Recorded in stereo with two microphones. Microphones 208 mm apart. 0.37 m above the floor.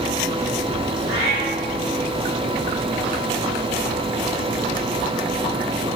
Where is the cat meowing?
30° right (ahead or behind), 2.0 m.